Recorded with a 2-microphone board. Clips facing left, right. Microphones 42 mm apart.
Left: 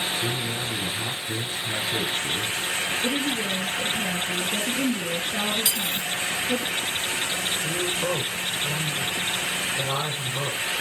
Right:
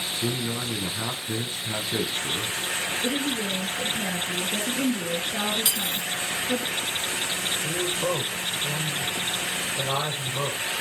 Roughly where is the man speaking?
Right.